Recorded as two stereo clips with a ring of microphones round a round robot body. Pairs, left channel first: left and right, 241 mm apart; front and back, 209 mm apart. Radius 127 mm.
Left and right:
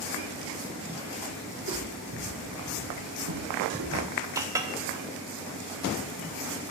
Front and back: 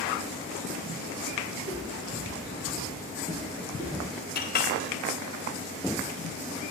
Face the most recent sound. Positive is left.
turn(degrees=-15)